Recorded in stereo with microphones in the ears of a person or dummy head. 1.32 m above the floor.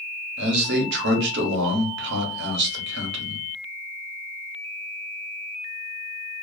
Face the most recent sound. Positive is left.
turn(degrees=-55)  # may be behind; listen again after turning